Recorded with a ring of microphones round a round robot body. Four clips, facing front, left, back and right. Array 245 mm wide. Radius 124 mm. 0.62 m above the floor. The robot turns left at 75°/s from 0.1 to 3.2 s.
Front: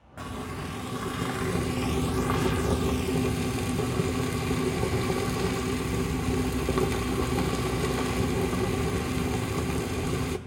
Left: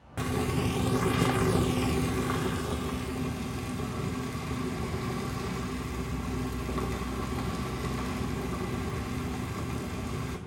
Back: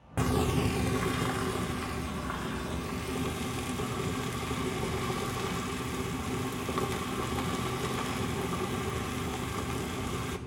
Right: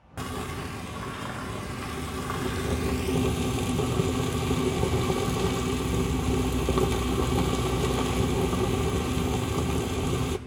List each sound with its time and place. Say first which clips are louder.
0.2 s frying: left 4 dB, back 7 dB; 170° left, 0.9 m; by 10.4 s 55° right, 0.9 m